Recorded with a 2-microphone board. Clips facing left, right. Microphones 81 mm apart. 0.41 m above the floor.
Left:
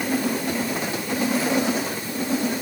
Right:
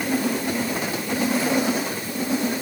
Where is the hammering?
I don't hear hammering.